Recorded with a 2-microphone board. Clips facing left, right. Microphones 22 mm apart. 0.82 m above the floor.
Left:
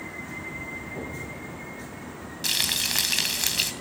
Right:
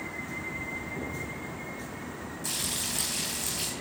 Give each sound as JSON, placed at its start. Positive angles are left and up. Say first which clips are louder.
{"t": 0.9, "sound": "an explosion", "louder": "even", "side_deg": 70, "distance_m": 9.5}
{"t": 2.4, "sound": "frying", "louder": "left 9 dB", "side_deg": 65, "distance_m": 3.0}